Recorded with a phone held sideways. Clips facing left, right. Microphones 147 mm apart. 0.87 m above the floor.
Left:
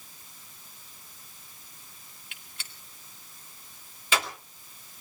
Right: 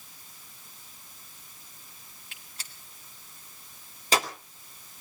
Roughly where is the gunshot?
Right.